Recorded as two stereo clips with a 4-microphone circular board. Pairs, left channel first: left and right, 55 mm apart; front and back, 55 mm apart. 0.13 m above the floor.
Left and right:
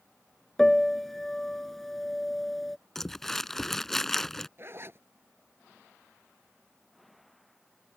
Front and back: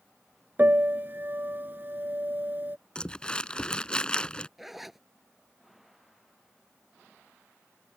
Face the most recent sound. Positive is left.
turn(degrees=-95)